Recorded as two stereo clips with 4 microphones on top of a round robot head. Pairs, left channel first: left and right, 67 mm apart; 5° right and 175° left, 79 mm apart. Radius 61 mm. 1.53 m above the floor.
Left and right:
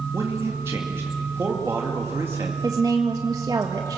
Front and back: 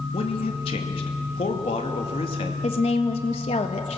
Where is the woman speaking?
30° right, 1.4 m.